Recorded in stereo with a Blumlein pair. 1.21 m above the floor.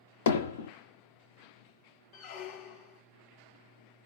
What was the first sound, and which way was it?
Hammering, 60° left.